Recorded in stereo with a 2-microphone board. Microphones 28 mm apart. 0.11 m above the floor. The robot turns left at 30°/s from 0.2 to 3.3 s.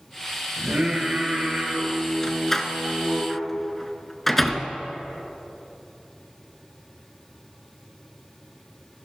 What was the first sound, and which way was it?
Singing, 55° right.